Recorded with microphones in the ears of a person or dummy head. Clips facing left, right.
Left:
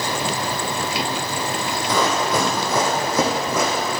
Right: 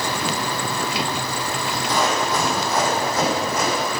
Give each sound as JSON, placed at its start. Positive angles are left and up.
{"t": 1.9, "sound": "running footsteps", "side_deg": 70, "distance_m": 4.0}